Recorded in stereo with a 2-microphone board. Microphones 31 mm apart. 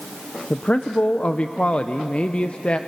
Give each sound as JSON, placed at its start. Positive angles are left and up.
{"t": 0.5, "sound": "a man speaking", "side_deg": 35, "distance_m": 0.7}